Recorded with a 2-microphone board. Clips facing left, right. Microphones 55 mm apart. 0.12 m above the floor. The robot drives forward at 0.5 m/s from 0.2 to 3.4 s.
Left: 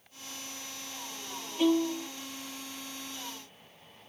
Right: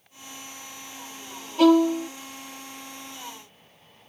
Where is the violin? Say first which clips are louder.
Right 9 dB; 65° right (ahead or behind); by 2.1 s 75° right (ahead or behind).